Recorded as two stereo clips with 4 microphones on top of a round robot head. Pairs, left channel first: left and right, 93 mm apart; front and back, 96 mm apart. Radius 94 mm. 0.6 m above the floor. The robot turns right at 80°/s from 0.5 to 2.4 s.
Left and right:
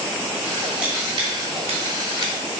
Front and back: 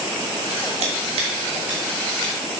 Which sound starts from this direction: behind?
Scissors, at 0.8 s.